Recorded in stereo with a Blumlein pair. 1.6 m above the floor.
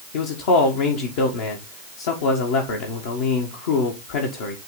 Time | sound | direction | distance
0.1 | a man speaking | 50° left | 1.7 m